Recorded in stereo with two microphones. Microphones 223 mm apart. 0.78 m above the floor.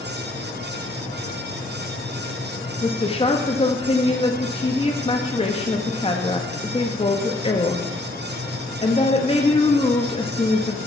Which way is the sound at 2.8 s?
25° left (ahead or behind).